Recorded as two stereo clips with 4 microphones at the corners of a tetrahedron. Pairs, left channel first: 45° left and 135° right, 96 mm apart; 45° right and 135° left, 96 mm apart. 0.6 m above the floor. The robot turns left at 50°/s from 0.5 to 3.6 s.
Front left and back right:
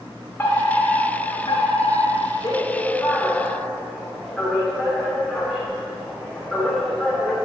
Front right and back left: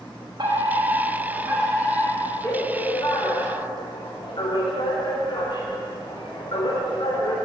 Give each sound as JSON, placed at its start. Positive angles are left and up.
{"t": 0.4, "sound": "a fire alarm", "azimuth_deg": 110, "distance_m": 3.5}